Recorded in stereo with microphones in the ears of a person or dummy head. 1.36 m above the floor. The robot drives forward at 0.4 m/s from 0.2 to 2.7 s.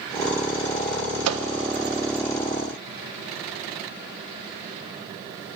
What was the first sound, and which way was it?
A microwave, 80° right.